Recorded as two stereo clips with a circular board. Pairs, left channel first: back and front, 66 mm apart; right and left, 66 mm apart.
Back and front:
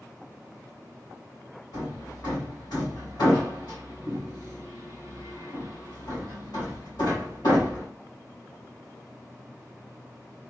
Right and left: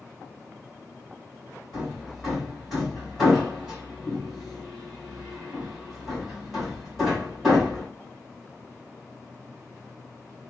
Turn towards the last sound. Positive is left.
turn(degrees=180)